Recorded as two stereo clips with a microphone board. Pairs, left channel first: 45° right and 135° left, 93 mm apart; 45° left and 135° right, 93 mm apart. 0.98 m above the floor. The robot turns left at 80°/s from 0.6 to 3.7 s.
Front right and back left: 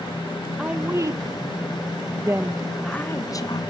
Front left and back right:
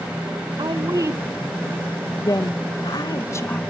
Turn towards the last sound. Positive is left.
turn(degrees=-30)